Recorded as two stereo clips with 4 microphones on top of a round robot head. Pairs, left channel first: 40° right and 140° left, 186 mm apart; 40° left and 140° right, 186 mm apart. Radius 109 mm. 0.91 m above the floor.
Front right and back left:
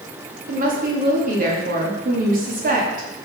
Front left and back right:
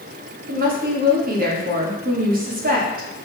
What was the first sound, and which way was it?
A woman speaking, straight behind.